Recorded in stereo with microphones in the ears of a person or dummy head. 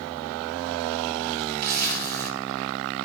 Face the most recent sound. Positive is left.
turn(degrees=-45)  # may be behind; listen again after turning